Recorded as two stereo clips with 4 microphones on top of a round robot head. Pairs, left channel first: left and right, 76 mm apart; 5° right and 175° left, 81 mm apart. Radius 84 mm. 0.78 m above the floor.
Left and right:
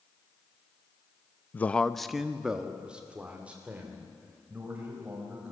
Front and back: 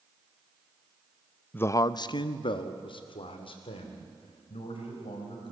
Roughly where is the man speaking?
Ahead left.